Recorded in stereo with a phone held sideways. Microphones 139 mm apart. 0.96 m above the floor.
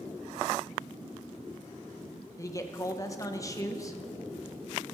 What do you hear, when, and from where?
2.4 s a man speaking: 25° left (ahead or behind), 0.7 m